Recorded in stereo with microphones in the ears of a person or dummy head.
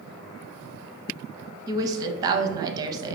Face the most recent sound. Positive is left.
turn(degrees=-20)  # may be behind; listen again after turning